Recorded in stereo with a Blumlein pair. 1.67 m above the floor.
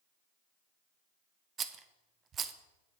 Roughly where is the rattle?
Ahead right.